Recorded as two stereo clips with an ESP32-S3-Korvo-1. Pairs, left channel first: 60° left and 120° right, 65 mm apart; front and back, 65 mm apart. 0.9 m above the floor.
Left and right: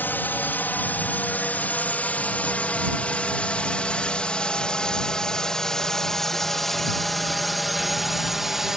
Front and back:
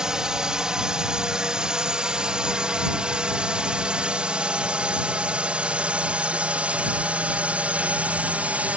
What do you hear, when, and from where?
0.0 s a drone: 105° left; by 8.8 s 165° left